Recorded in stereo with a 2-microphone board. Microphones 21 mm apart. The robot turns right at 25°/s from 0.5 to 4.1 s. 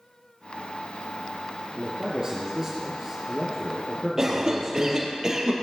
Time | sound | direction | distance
1.8 | a man speaking | 55° right | 2 m
4.2 | a cough | 25° right (ahead or behind) | 3 m